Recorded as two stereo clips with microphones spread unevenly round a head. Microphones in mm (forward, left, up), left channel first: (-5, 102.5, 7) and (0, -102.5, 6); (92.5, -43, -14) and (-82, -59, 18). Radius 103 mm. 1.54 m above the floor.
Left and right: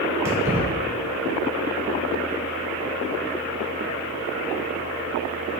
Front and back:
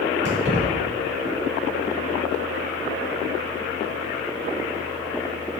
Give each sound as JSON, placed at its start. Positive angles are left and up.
{"t": 0.2, "sound": "keys jangling", "azimuth_deg": -165, "distance_m": 3.5}